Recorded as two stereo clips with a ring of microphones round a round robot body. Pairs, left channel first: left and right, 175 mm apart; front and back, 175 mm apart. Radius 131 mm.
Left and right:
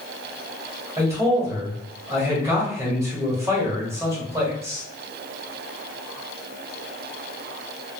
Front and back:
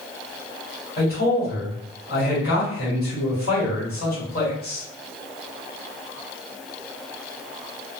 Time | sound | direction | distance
1.0 | a man speaking | 20° right | 1.6 m